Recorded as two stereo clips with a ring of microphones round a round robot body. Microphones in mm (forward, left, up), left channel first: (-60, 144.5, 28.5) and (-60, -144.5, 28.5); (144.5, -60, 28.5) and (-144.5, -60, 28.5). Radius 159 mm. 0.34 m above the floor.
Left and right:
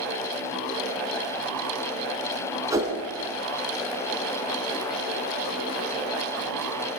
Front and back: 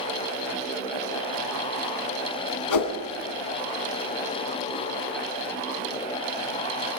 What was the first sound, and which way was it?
A whoosh, 10° right.